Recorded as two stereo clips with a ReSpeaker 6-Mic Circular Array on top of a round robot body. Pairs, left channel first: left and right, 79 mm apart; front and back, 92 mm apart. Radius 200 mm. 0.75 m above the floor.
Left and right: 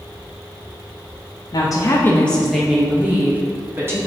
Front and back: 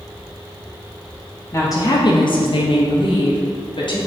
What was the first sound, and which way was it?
A woman speaking, 60° left.